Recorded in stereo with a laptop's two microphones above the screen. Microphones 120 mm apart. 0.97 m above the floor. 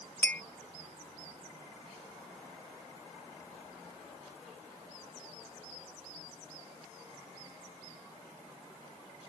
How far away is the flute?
I don't hear a flute.